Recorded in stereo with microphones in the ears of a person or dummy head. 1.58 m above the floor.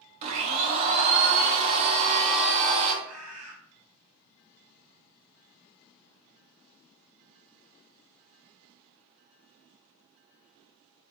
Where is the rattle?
I don't hear a rattle.